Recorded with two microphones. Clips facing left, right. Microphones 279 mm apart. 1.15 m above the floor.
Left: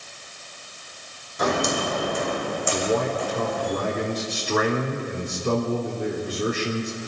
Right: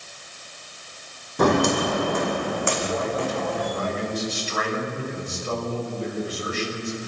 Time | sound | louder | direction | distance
1.4 | footsteps | right 5 dB | 60° right (ahead or behind) | 2.5 m
2.7 | a man speaking | left 3 dB | 65° left (ahead or behind) | 4 m